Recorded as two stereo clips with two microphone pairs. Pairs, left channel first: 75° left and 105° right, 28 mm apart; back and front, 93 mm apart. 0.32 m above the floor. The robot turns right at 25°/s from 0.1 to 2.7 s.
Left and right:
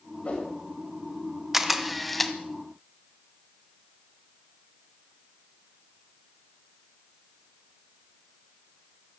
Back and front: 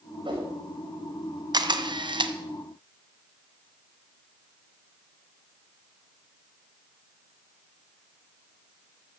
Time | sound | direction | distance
0.2 | a whoosh | 30° left | 6.5 m
1.5 | a camera shutter | 30° right | 1.3 m